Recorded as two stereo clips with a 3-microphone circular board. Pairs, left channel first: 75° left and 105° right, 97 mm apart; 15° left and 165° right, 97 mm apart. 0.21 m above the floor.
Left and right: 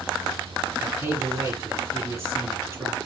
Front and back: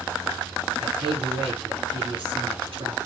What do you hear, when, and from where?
0.8 s a man speaking: 165° right, 3.5 m